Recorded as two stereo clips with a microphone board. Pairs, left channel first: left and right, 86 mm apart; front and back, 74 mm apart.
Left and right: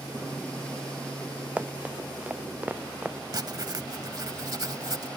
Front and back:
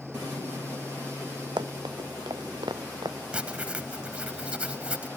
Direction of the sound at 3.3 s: 105° right.